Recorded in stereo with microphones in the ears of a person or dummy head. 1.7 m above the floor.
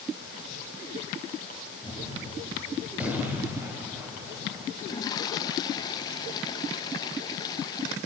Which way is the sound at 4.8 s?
25° left (ahead or behind).